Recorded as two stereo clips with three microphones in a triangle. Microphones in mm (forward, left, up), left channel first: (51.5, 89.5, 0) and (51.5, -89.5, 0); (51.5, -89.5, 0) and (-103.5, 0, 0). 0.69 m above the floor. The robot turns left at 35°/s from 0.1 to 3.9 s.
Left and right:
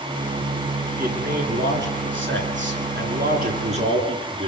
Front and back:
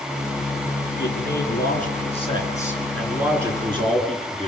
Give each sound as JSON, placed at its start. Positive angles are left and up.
{"t": 1.0, "sound": "a man speaking", "azimuth_deg": -45, "distance_m": 9.5}